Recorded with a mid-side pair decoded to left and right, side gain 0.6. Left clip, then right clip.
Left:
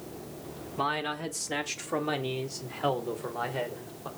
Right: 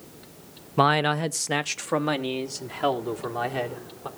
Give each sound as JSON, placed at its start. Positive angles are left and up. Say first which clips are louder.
{"t": 0.8, "sound": "a man speaking", "louder": "right 9 dB", "azimuth_deg": -65, "distance_m": 0.7}